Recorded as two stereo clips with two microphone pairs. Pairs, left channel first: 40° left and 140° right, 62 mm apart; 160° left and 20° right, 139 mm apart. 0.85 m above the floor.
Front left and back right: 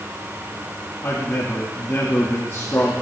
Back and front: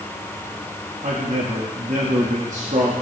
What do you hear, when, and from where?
1.0 s a man speaking: 5° right, 1.9 m